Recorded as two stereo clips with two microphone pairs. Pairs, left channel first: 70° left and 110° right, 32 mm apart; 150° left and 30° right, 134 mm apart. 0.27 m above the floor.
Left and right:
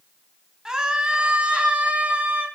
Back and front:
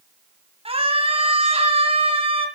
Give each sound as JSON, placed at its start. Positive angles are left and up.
{"t": 0.7, "sound": "a scream", "azimuth_deg": -45, "distance_m": 1.9}